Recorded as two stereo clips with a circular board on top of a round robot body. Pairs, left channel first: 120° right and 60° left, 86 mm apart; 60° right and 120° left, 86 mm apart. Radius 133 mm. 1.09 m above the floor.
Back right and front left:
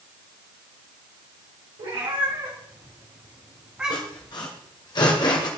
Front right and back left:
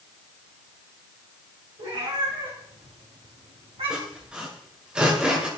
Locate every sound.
1.8 s a cat meowing: 85° left, 3.5 m; by 4.3 s 150° left, 3 m
3.9 s sawing: 160° right, 2.0 m